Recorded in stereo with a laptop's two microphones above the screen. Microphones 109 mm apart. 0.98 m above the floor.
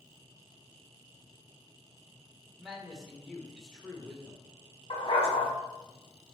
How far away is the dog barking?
About 1.9 m.